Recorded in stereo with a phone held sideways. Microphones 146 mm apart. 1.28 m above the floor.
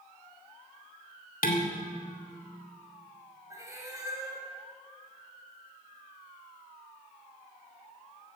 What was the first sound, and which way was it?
Dishes clattering, 75° left (ahead or behind).